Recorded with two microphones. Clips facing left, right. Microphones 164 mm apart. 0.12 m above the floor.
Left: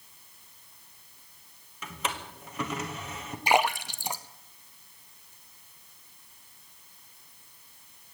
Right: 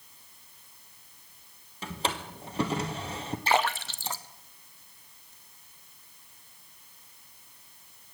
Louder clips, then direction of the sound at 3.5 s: Left 2 dB; 15° left (ahead or behind).